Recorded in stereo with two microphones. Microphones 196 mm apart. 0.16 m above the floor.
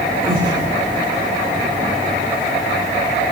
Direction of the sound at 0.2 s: 50° right (ahead or behind).